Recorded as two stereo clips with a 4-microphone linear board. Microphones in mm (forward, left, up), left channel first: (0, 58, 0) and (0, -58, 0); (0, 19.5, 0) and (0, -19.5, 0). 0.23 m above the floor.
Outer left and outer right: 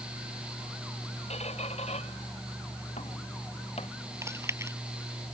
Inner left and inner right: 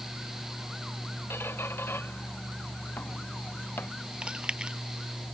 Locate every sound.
1.3 s a squeak: 85° left
4.2 s chewing: 25° right (ahead or behind)